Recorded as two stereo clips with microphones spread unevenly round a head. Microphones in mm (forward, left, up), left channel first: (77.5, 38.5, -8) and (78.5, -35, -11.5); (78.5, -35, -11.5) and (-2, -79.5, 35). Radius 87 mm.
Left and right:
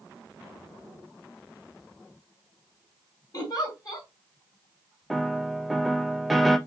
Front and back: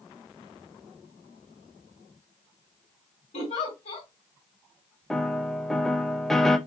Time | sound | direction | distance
3.3 | a giggle | 60° left | 2.5 m
5.1 | a piano | straight ahead | 0.6 m